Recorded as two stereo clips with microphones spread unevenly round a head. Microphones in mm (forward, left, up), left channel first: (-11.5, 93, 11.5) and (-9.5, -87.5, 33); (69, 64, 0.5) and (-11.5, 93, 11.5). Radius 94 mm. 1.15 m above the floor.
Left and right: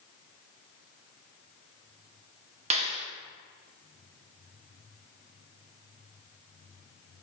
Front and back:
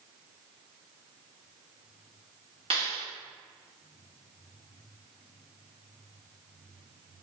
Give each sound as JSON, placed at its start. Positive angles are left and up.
{"t": 2.7, "sound": "a clap", "azimuth_deg": -145, "distance_m": 1.9}